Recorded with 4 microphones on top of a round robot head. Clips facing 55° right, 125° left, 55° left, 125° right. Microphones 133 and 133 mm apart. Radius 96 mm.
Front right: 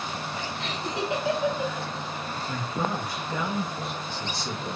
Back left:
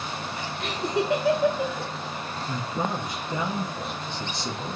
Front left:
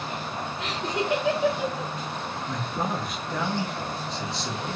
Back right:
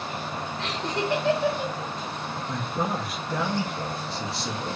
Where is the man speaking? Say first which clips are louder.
Back left 1 dB, back right 1 dB; 150° left, 0.7 m.